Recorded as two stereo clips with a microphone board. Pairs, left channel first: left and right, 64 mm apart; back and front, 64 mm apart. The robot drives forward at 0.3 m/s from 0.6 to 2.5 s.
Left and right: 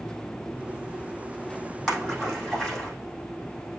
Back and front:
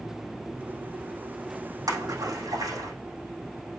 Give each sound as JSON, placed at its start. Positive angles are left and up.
{"t": 1.9, "sound": "a splash", "azimuth_deg": 0, "distance_m": 6.0}